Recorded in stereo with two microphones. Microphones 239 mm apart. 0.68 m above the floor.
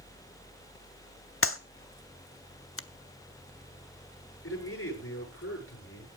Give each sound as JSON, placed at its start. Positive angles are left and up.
{"t": 1.4, "sound": "a clap", "side_deg": 60, "distance_m": 1.0}
{"t": 2.8, "sound": "a finger snap", "side_deg": 60, "distance_m": 0.7}
{"t": 4.4, "sound": "a man speaking", "side_deg": 70, "distance_m": 9.0}